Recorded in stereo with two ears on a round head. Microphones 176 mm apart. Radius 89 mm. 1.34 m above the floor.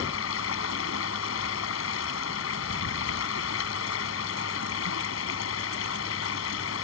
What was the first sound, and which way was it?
Running water, 75° left (ahead or behind).